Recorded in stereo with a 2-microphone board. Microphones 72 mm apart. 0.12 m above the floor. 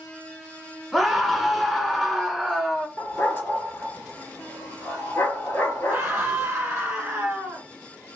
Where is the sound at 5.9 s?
20° right (ahead or behind), 1.1 m.